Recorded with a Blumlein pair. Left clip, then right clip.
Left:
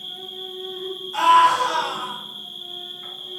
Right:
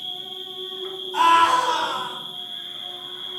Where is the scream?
30° left, 1.5 m.